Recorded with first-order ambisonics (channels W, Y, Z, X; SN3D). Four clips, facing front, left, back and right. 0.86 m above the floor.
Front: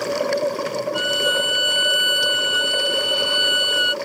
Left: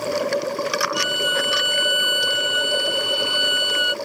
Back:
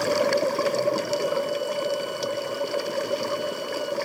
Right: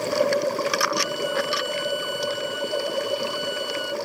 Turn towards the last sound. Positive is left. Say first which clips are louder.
# left 4 dB, front 6 dB
turn(degrees=35)